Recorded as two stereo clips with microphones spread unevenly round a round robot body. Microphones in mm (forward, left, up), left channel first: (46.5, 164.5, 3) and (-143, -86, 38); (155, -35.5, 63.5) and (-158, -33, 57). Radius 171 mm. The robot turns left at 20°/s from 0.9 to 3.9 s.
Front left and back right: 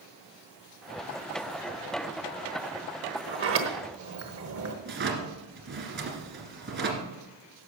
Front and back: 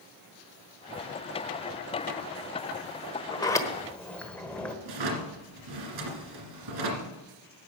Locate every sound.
3.3 s a sliding door: 75° right, 1.2 m; by 4.8 s 85° right, 1.2 m
4.8 s a drawer: 175° left, 2 m